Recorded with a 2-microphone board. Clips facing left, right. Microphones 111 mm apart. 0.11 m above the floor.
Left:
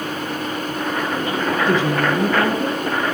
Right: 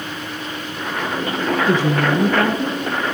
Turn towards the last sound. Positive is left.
turn(degrees=10)  # may be behind; listen again after turning